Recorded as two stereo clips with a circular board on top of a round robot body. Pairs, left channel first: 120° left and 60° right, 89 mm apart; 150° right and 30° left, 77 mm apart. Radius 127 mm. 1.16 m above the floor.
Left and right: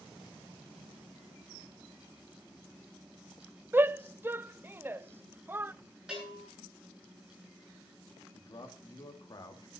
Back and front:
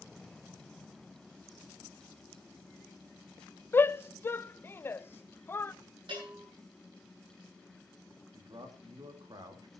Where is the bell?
25° left, 8.5 m.